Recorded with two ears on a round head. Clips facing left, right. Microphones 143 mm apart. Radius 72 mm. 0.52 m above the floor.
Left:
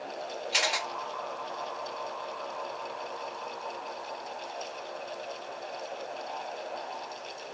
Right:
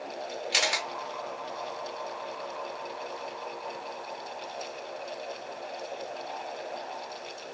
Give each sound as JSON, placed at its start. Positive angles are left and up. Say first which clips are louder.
{"t": 0.5, "sound": "a camera shutter", "louder": "even", "side_deg": -65, "distance_m": 0.9}